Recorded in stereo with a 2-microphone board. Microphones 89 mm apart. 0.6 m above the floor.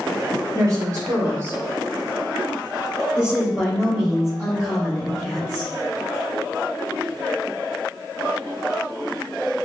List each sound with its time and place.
0.5 s a woman speaking: 40° right (ahead or behind), 2.0 m; by 5.7 s 5° left (ahead or behind), 4 m